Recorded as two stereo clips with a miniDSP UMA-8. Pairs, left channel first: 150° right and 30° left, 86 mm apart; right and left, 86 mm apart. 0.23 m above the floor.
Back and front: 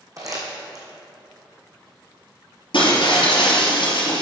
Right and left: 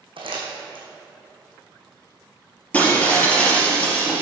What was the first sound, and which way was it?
Crumpling, 80° left.